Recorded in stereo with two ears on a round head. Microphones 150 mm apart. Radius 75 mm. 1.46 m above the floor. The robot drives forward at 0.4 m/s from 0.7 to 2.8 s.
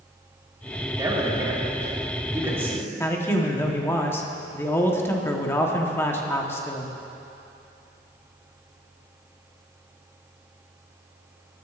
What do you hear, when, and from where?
1.0 s a man speaking: 20° right (ahead or behind), 1.6 m; by 2.9 s 15° right (ahead or behind), 2 m
3.0 s a man speaking: 15° left (ahead or behind), 1.0 m